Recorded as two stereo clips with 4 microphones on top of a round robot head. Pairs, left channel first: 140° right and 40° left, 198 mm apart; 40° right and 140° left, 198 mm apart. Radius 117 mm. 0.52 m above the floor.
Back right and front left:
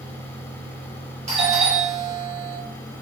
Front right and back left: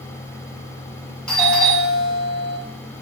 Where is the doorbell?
40° left, 1.5 m.